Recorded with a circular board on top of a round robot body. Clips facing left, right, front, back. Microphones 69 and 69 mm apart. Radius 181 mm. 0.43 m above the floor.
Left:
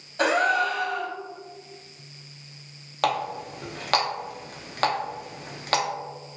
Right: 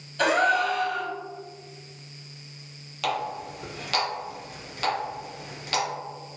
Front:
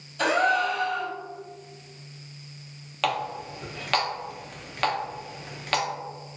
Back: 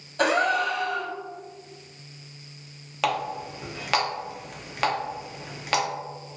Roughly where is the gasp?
Behind left.